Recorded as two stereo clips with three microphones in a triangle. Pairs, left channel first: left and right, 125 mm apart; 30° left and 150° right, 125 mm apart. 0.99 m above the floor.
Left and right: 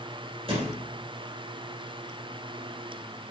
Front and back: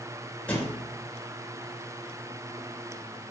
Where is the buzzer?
I don't hear a buzzer.